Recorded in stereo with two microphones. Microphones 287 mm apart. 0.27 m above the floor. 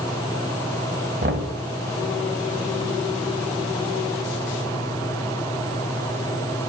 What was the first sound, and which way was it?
Knocking, 40° right (ahead or behind).